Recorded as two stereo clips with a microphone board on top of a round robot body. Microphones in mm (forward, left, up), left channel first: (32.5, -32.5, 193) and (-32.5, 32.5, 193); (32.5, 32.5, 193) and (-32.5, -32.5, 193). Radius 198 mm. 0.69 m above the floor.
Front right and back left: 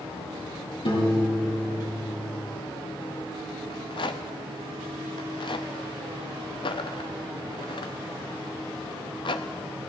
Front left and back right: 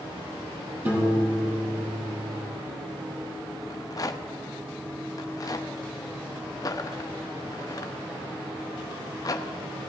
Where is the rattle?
10° right, 0.5 m.